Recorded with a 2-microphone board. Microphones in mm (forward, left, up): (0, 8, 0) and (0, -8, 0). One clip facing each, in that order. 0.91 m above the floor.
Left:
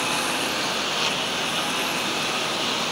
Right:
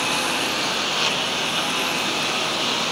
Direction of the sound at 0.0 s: 10° right (ahead or behind).